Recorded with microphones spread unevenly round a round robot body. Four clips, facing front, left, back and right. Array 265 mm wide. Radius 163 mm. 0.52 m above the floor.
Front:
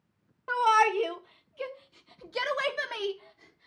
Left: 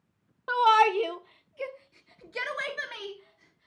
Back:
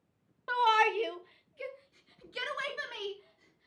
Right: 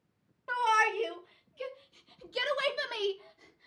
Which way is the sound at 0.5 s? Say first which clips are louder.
Left 7 dB, front 3 dB; 70° left.